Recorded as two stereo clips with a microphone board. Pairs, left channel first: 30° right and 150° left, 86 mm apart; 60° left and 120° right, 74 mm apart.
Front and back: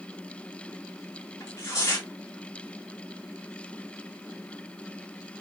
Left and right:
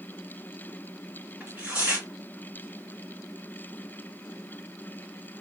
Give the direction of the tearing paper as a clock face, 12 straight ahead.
2 o'clock.